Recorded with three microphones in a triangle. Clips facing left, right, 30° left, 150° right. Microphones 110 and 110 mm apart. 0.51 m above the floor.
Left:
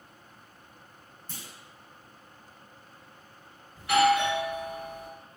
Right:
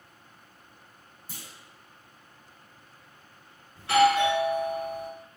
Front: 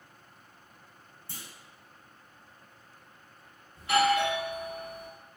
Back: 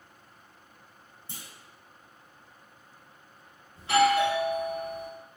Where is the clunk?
150° right, 0.6 m.